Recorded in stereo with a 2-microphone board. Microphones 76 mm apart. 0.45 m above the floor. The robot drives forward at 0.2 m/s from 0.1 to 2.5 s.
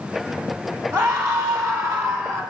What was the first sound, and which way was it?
A scream, 30° right (ahead or behind).